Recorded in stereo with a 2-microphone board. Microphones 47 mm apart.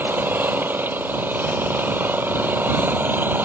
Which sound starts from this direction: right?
An engine running, at 0.0 s.